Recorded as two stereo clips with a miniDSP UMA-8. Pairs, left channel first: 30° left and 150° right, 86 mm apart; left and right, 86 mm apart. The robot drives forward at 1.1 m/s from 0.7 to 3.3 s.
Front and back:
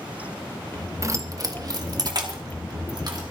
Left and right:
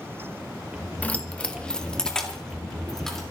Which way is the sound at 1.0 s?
160° left.